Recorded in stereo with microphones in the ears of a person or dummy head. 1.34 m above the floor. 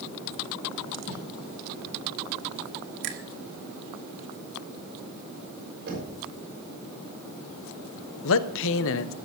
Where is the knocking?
50° right (ahead or behind), 6 m.